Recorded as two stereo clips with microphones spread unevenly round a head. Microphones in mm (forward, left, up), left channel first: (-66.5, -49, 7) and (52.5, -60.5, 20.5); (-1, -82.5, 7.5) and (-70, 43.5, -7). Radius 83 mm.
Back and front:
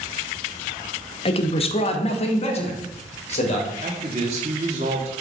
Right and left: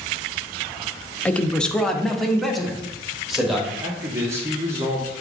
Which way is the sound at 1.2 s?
140° right.